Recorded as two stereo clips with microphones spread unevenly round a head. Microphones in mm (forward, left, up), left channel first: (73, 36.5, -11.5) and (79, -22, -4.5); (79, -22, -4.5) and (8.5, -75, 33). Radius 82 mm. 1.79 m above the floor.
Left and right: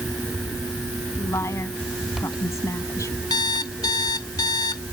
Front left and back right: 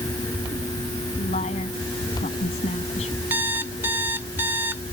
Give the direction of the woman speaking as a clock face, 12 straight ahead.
10 o'clock.